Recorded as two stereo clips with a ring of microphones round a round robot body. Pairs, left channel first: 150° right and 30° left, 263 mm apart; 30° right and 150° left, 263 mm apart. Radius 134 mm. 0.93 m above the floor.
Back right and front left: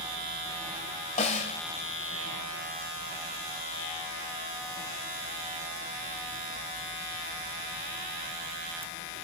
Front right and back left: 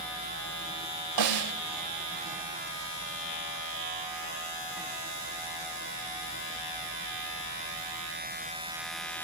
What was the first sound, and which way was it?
A snare drum, 145° left.